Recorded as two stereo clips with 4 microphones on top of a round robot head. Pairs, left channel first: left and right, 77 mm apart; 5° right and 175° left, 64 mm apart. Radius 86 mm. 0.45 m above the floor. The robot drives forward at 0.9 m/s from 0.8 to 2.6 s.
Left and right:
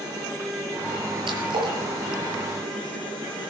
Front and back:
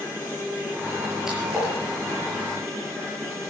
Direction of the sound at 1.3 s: 100° right.